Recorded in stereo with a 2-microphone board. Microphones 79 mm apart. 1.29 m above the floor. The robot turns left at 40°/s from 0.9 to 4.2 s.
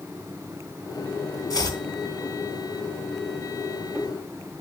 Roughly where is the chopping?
Left.